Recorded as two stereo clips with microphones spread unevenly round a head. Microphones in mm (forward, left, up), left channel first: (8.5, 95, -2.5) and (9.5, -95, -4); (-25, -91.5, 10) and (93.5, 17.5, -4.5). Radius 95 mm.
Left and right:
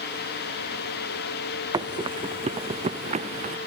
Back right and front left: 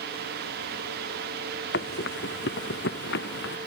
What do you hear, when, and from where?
1.7 s running footsteps: 160° right; by 3.6 s 145° right